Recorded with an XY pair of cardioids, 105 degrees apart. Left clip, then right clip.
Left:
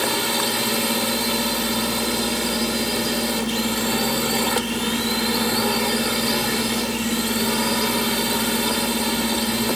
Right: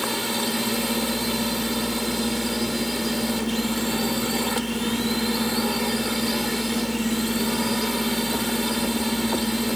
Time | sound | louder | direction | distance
0.0 | a drone | left 4 dB | 30° left | ?